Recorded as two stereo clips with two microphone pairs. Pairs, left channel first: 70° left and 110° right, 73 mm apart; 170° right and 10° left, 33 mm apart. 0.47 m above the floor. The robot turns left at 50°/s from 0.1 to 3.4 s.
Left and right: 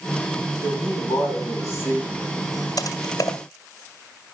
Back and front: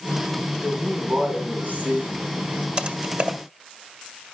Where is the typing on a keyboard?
60° left, 1.6 m; by 3.4 s 30° left, 1.6 m.